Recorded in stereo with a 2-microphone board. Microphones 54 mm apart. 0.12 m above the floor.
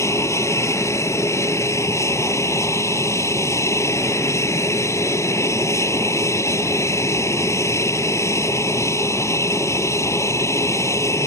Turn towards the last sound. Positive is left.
turn(degrees=60)  # may be behind; listen again after turning